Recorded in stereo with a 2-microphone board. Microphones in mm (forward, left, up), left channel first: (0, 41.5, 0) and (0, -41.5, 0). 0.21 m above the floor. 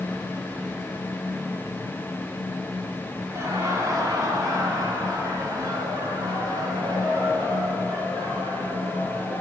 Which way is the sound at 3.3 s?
35° right (ahead or behind).